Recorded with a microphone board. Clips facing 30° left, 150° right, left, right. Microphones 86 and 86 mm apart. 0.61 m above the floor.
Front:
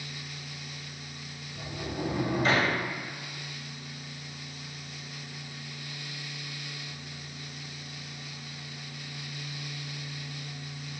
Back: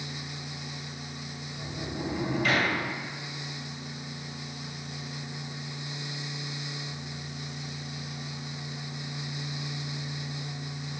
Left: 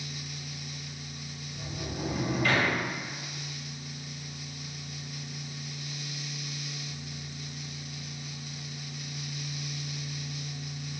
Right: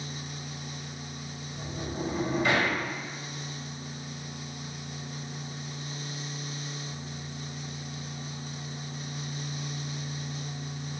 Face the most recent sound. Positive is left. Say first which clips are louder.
# front 1 dB, right 2 dB
turn(degrees=-25)